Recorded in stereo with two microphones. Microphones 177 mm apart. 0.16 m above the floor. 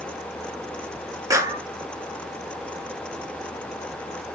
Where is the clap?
20° right (ahead or behind), 2 m.